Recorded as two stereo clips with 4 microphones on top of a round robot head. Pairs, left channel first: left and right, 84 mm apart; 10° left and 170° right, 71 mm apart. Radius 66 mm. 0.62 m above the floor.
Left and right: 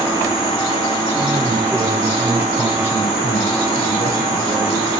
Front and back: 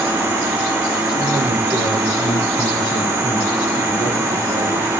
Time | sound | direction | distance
1.1 | a man speaking | 20° right | 7.5 m